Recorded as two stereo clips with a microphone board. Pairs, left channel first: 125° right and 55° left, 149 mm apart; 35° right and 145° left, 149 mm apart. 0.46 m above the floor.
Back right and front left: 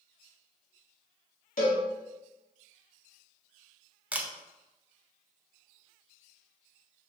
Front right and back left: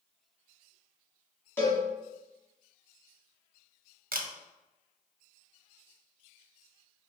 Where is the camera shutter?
135° left, 0.6 m.